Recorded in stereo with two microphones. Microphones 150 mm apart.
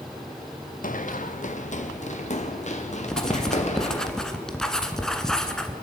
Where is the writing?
5° left (ahead or behind), 1.6 m.